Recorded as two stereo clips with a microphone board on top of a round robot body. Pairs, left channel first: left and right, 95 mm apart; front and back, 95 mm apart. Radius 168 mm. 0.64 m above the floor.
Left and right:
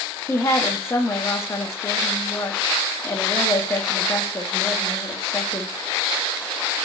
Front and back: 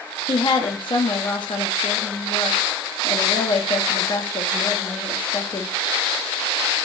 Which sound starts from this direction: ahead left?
A woman speaking, at 0.3 s.